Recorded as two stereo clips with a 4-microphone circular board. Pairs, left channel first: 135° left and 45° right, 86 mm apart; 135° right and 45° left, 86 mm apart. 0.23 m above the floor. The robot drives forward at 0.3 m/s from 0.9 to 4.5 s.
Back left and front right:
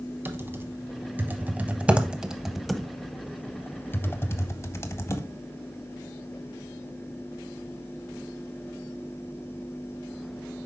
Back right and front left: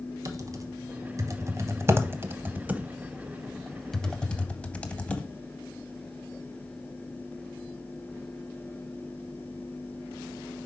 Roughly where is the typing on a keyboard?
Ahead.